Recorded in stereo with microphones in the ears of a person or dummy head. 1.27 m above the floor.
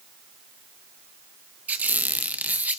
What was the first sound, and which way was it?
A squeak, 10° right (ahead or behind).